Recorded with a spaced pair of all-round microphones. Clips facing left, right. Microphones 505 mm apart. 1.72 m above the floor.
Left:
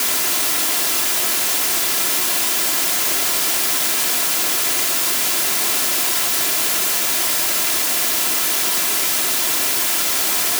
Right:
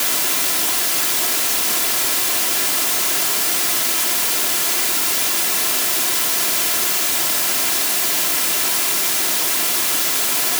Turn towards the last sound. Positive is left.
No sound to turn to.